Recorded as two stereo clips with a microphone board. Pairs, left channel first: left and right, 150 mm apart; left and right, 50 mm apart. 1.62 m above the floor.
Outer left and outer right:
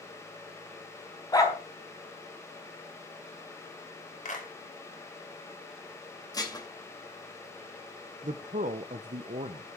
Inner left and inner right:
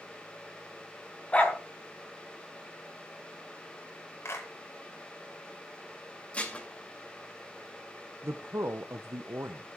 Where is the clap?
55° left (ahead or behind), 4.5 m.